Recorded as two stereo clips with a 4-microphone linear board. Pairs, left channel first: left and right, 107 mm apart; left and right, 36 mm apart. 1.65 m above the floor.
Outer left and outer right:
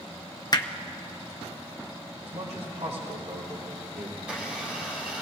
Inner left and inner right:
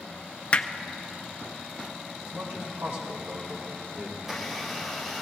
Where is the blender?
10° right (ahead or behind), 3 m.